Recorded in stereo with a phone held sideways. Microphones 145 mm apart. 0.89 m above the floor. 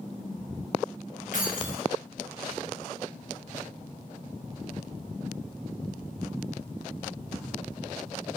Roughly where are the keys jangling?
Left.